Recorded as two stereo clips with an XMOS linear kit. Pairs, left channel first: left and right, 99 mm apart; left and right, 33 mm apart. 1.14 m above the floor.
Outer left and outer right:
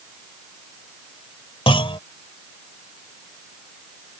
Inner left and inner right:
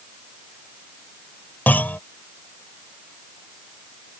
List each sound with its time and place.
1.7 s a clunk: 70° left (ahead or behind)